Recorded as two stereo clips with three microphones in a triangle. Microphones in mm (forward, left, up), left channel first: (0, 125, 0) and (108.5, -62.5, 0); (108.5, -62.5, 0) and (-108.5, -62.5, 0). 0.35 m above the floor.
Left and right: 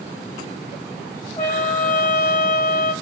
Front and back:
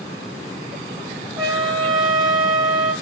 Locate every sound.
1.4 s a trumpet: 170° right, 1.5 m